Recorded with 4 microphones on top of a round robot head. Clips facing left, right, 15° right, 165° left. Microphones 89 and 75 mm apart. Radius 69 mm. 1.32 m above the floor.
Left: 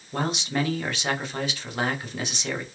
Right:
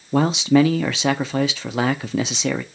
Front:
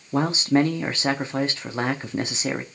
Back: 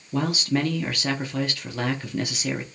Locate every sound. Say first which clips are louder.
0.1 s a man speaking: right 11 dB, front 4 dB; 80° right, 0.8 m